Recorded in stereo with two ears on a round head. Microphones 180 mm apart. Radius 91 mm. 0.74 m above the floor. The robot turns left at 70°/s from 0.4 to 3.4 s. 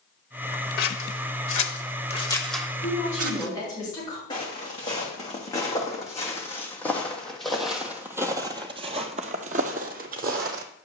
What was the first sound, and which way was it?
Scissors, 50° left (ahead or behind).